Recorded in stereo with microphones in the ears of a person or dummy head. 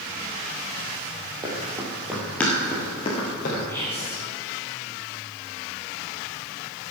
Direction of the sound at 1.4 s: 15° right (ahead or behind).